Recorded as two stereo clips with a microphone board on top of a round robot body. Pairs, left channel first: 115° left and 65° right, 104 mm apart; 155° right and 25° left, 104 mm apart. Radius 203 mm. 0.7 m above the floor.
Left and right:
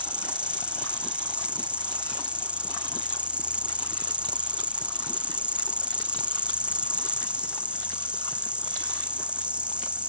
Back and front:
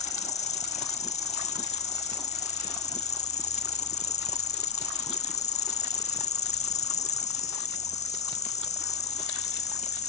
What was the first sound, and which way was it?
An insect, 150° right.